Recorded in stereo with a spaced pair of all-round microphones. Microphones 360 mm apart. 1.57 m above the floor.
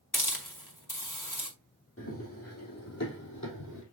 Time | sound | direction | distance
0.1 | a hiss | 60° left (ahead or behind) | 2 m
2.0 | running footsteps | 35° left (ahead or behind) | 3.5 m